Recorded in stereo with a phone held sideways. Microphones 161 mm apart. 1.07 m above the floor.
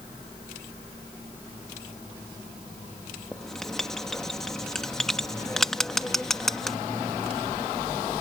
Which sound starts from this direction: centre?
Writing, at 3.3 s.